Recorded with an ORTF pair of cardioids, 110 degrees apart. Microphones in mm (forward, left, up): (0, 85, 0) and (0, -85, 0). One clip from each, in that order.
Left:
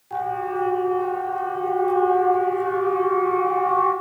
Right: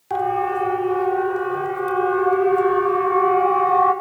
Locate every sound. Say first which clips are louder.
0.1 s a siren: right 4 dB; 65° right, 5 m; by 3.9 s 60° right, 8 m